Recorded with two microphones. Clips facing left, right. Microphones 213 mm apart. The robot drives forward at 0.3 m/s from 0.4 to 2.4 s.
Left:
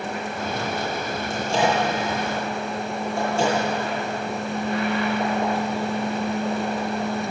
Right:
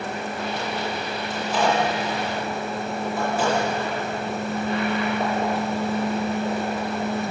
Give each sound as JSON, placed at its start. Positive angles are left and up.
{"t": 1.3, "sound": "a microwave", "side_deg": 30, "distance_m": 9.5}